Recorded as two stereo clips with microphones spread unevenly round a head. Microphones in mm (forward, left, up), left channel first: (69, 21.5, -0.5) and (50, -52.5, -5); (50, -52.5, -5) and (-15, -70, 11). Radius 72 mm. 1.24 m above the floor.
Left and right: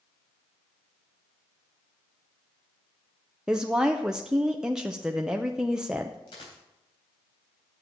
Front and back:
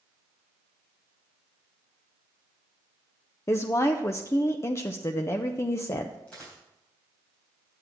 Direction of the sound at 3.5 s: 25° right.